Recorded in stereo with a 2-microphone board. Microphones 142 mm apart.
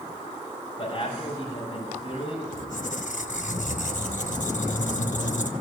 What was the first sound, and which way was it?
A man speaking, 40° left (ahead or behind).